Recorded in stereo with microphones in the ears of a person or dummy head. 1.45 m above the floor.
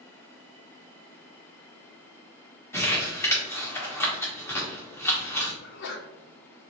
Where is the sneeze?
75° left (ahead or behind), 0.9 m.